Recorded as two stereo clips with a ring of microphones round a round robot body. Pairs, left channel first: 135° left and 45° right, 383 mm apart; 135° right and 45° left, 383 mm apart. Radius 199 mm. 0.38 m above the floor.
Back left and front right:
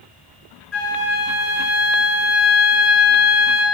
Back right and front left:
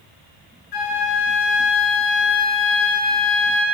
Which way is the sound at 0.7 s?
170° right.